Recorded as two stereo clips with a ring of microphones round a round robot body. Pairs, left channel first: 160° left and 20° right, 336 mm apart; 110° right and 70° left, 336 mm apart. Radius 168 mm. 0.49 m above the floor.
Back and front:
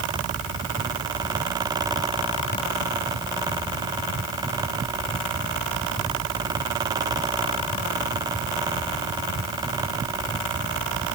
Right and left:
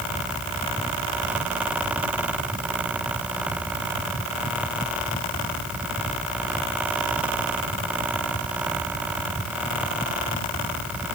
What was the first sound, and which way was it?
Only background noise.